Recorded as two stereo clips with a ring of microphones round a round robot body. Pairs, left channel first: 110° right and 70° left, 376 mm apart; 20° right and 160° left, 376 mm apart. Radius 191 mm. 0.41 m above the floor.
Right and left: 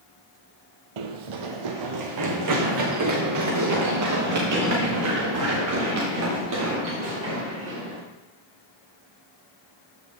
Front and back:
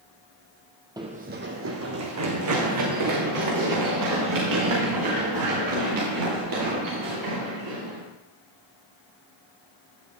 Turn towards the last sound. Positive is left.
turn(degrees=120)